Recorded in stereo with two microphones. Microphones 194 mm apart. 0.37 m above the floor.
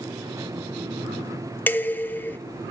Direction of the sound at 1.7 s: 10° left (ahead or behind).